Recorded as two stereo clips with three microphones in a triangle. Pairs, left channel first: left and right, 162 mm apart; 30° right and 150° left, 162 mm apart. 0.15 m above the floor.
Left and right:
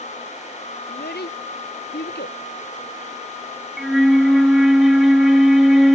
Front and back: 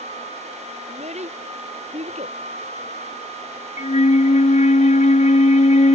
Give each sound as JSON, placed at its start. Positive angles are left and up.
{"t": 0.9, "sound": "a child speaking", "azimuth_deg": 100}
{"t": 3.8, "sound": "a flute", "azimuth_deg": 0}